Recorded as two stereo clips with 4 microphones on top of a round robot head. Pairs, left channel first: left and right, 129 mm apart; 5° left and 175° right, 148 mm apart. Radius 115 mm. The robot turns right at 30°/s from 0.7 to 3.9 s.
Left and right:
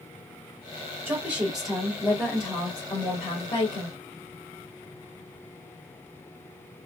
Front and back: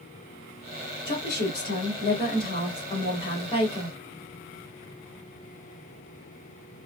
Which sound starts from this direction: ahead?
A woman speaking, at 1.1 s.